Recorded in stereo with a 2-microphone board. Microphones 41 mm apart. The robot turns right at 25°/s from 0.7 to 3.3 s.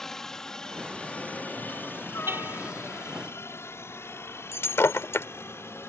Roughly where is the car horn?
Right.